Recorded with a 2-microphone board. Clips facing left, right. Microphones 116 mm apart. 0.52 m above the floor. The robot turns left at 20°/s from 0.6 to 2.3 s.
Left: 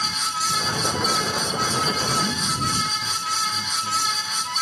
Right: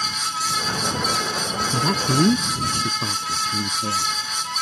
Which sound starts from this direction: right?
A man speaking, at 1.7 s.